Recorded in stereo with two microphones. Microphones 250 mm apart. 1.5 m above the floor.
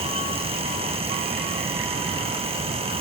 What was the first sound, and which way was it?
Only background noise.